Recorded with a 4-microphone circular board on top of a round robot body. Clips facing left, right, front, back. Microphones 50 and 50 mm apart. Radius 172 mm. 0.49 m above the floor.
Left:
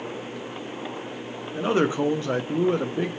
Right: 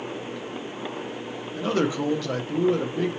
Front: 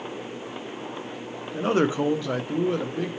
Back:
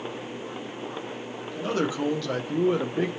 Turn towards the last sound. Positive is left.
turn(degrees=140)